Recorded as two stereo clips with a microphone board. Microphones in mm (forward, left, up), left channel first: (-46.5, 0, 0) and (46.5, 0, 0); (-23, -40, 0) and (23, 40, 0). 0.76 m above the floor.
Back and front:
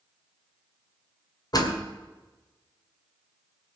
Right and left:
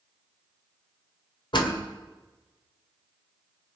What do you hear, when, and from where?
1.5 s a door slam: 140° right, 2 m